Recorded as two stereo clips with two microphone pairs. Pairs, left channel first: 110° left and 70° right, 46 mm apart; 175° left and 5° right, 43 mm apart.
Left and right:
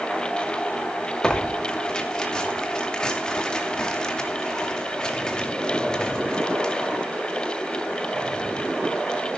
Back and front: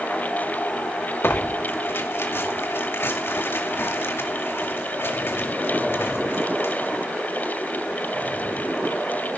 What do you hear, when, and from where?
1.2 s tearing paper: straight behind, 2.5 m